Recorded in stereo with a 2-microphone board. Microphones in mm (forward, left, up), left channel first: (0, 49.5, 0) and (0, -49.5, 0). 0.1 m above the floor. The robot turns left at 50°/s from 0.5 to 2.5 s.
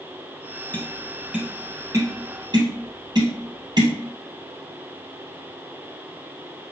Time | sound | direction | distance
0.7 | tapping | 20° left (ahead or behind) | 2.0 m